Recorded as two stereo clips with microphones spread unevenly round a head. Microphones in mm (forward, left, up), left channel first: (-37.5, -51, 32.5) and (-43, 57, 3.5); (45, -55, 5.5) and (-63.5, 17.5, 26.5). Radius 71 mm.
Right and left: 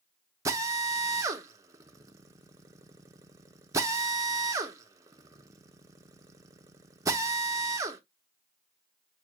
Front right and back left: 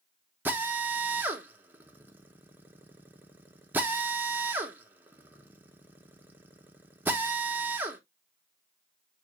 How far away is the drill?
About 0.6 m.